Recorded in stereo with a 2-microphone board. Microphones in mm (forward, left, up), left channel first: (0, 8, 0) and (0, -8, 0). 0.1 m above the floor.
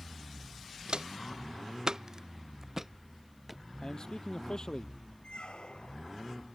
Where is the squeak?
80° left.